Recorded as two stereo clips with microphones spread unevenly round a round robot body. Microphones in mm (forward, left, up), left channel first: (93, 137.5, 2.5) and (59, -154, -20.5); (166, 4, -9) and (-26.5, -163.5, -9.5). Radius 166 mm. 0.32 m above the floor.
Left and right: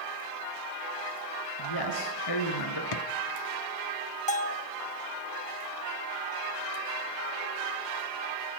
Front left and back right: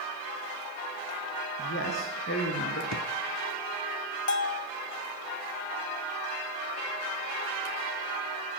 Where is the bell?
20° left, 1.4 m.